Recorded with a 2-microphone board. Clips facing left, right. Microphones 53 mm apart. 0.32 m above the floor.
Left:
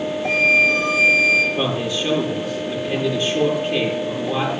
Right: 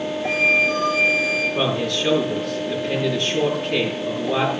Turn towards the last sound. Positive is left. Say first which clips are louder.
# even
turn(degrees=-75)  # may be behind; listen again after turning